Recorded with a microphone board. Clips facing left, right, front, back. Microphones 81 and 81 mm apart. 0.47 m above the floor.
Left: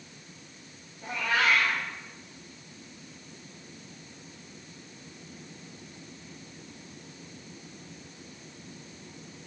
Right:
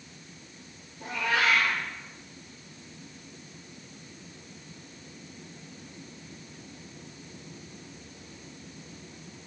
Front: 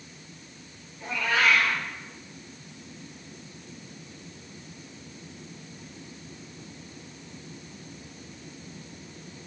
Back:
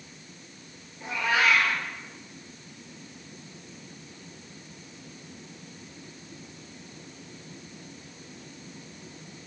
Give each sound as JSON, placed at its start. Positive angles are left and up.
{"t": 1.0, "sound": "a cat meowing", "azimuth_deg": -105, "distance_m": 4.0}